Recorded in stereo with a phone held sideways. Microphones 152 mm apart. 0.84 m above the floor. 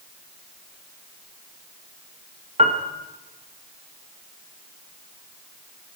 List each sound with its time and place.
2.6 s a piano: 45° right (ahead or behind), 1.3 m